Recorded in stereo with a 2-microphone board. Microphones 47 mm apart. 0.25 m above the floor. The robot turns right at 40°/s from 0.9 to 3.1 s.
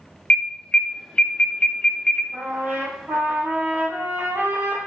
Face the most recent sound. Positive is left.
turn(degrees=-120)